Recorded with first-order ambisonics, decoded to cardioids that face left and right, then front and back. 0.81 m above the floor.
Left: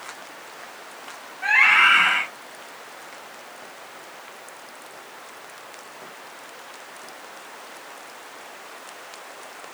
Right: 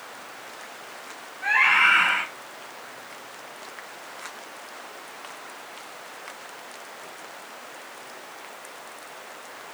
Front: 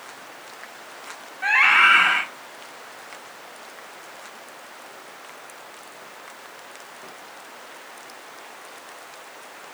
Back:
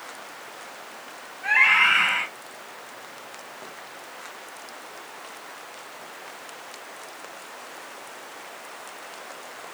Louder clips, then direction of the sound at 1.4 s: Left 3 dB, front 2 dB; 15° left.